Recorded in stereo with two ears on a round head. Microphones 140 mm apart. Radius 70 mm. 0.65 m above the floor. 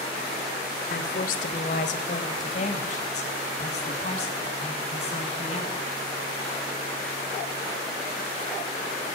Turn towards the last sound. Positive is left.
turn(degrees=40)  # may be behind; listen again after turning